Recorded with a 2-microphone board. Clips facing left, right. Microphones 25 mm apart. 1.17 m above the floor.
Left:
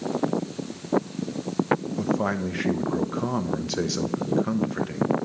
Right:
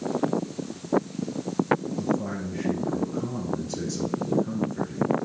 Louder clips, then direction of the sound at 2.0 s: Left 3 dB; 55° left (ahead or behind).